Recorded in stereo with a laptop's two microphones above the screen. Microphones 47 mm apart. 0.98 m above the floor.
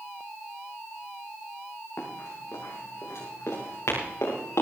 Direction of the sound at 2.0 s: 75° left (ahead or behind).